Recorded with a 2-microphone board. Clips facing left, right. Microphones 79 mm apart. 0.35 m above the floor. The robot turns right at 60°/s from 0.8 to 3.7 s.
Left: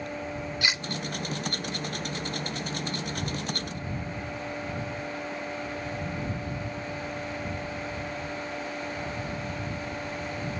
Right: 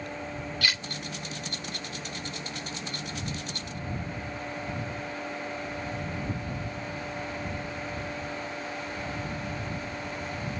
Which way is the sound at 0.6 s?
20° left (ahead or behind).